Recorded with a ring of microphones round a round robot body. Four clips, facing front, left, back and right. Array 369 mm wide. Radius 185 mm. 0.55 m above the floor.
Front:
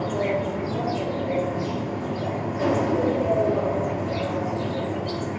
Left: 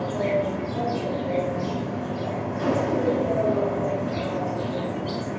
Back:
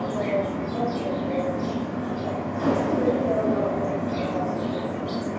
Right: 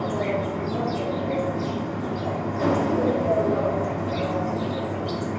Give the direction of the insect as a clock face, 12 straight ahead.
1 o'clock.